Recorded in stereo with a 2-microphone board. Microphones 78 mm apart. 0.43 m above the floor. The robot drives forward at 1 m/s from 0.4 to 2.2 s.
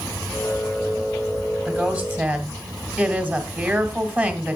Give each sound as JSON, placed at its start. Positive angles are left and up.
{"t": 1.6, "sound": "a woman speaking", "side_deg": -15, "distance_m": 2.5}